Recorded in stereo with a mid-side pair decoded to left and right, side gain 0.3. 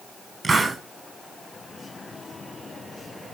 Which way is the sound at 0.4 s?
45° right.